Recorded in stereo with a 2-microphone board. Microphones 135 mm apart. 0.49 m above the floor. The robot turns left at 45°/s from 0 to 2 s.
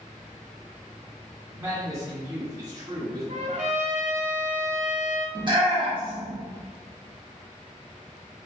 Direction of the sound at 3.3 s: 65° right (ahead or behind).